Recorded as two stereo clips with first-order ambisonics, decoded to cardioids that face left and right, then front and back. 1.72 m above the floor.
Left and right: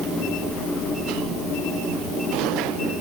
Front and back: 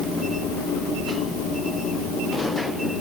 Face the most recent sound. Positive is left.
No sound to turn to.